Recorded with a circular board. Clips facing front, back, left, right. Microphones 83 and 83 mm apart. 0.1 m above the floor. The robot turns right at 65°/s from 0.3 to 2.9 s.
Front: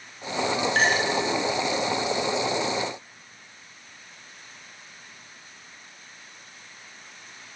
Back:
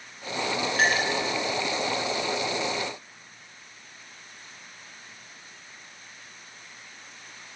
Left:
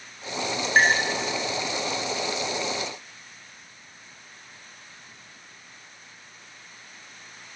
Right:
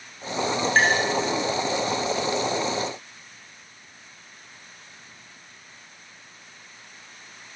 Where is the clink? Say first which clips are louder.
Even, left 1 dB; 5° left, 6.5 m; by 1.0 s 25° left, 6.5 m.